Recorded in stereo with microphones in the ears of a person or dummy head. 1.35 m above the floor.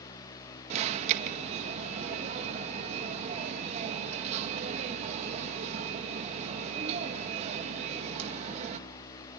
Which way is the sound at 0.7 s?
40° right (ahead or behind).